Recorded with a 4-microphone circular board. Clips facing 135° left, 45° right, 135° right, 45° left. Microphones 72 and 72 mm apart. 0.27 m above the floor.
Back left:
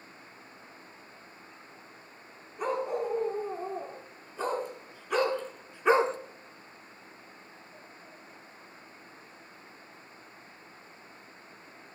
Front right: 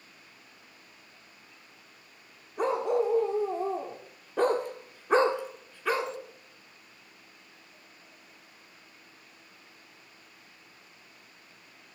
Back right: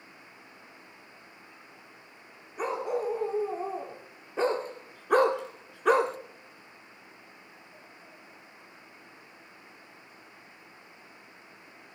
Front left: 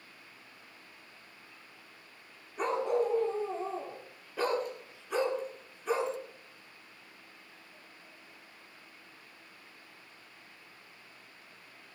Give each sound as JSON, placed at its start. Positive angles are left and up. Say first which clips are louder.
{"t": 2.6, "sound": "a dog barking", "louder": "front right 4 dB, front left 1 dB", "azimuth_deg": -50, "distance_m": 3.0}